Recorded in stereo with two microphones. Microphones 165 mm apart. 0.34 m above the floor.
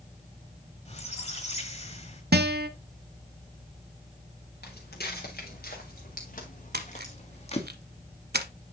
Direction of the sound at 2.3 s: 75° right (ahead or behind).